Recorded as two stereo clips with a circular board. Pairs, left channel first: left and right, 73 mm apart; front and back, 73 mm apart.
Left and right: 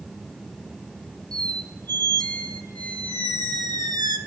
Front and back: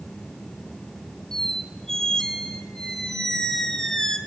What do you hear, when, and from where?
1.3 s a squeak: 80° right, 0.6 m